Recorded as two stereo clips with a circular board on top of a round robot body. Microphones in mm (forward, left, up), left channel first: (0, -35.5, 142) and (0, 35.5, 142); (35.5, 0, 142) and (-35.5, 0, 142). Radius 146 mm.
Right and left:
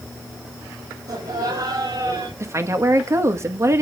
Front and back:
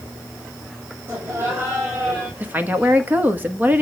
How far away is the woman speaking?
About 1.5 m.